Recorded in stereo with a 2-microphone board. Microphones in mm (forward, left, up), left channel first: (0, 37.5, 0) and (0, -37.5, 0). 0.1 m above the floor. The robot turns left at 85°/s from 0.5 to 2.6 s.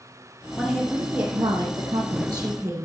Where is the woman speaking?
25° left, 2.5 m; by 2.9 s 150° right, 2.5 m.